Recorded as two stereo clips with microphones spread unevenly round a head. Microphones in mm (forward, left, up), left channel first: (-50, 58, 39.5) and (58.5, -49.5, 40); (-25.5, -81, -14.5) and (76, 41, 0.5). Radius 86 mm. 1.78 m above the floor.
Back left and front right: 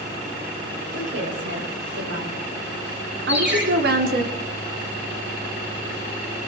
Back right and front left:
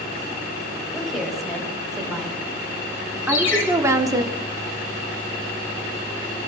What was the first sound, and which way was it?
A woman speaking, 40° right.